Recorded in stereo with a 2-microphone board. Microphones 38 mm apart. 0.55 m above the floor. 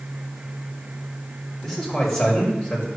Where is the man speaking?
5° left (ahead or behind), 3 m; by 2.9 s 25° left (ahead or behind), 2.5 m.